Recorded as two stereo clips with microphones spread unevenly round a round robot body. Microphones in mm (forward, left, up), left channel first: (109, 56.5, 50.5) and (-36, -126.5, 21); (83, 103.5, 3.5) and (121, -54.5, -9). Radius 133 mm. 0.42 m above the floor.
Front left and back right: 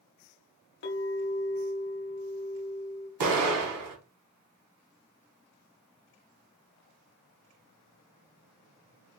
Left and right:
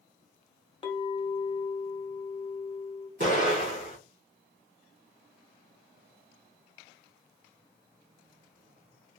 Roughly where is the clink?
Ahead left.